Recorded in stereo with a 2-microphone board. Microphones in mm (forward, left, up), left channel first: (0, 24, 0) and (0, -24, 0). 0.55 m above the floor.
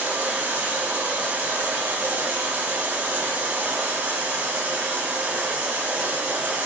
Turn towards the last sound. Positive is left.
turn(degrees=-35)  # may be behind; listen again after turning